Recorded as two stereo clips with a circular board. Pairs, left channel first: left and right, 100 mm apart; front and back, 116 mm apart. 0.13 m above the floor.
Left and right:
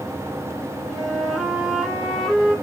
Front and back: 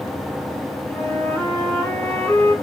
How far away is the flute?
About 1.5 m.